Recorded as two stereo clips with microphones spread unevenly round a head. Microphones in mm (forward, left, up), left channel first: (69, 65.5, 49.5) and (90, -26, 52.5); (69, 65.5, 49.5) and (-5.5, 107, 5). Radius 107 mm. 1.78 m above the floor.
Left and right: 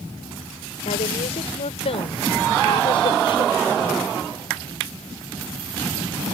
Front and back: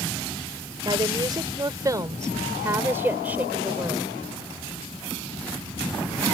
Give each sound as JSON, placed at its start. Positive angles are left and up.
{"t": 0.8, "sound": "a woman speaking", "azimuth_deg": 110}